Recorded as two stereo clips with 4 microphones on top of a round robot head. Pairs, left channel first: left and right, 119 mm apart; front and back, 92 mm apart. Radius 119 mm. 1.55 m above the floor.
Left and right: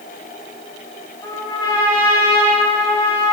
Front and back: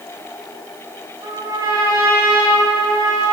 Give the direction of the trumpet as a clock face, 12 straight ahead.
7 o'clock.